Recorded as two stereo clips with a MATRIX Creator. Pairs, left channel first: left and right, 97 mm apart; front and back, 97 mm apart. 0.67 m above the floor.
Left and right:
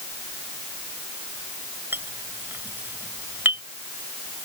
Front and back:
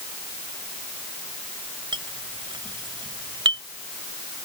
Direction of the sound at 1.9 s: 155° right.